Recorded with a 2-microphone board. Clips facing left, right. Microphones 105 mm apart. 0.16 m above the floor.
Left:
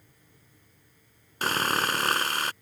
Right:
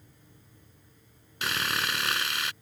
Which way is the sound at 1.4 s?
45° left (ahead or behind).